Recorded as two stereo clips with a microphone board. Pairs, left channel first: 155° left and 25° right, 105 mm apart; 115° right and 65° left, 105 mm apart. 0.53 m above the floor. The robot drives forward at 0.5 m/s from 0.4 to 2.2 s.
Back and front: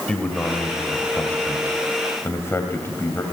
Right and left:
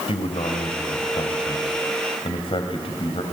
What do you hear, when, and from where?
0.1 s a man speaking: 120° right, 2.5 m; by 3.2 s 135° right, 3 m